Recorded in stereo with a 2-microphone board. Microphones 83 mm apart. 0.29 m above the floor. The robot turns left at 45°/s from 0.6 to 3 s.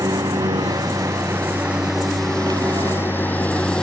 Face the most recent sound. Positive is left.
turn(degrees=10)  # may be behind; listen again after turning